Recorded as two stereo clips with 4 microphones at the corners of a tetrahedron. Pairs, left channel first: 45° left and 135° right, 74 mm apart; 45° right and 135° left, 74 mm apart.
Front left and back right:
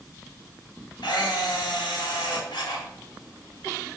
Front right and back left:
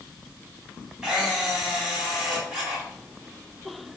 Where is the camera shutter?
55° left, 3.5 m.